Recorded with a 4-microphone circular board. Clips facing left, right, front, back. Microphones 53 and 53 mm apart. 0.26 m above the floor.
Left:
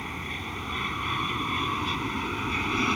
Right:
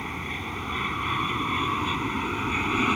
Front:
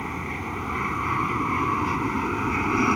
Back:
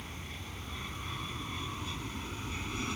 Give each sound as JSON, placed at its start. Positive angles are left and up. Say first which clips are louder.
{"t": 0.0, "sound": "an aircraft", "louder": "right 2 dB, front 15 dB", "azimuth_deg": -15}